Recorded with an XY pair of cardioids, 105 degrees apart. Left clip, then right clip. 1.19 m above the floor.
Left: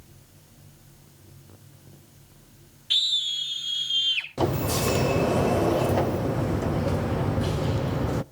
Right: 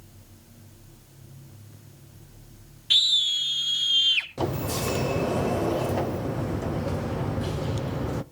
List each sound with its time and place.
2.9 s a scream: 25° right, 3 m
4.4 s a sliding door: 20° left, 0.5 m